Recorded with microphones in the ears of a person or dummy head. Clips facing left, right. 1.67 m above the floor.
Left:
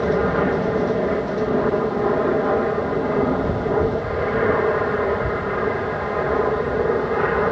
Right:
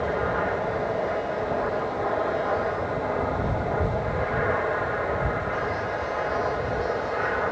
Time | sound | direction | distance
0.0 | an aircraft | 55° left (ahead or behind) | ?